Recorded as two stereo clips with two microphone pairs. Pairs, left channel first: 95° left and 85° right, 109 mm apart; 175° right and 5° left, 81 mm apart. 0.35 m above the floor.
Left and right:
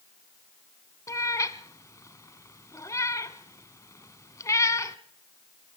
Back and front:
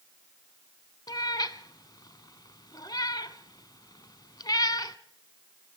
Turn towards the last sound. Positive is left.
turn(degrees=155)